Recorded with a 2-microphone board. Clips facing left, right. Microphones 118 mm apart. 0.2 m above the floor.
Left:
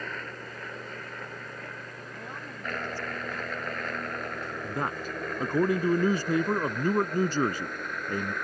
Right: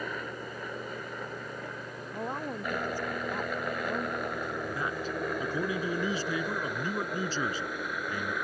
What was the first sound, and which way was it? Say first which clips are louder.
A helicopter: right 2 dB; 15° right (ahead or behind).